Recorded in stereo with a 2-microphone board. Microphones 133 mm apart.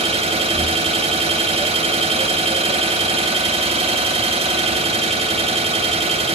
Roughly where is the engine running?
Right.